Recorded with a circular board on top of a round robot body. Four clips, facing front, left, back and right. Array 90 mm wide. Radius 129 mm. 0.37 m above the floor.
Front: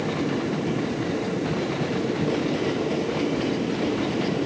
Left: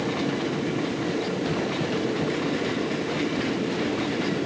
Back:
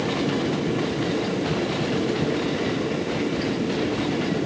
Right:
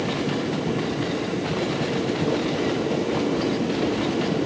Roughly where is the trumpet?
I don't hear a trumpet.